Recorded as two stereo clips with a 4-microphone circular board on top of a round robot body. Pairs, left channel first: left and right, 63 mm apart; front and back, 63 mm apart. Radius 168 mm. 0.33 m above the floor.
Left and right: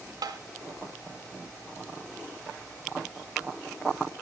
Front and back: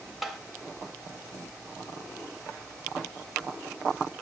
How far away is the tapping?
About 0.9 m.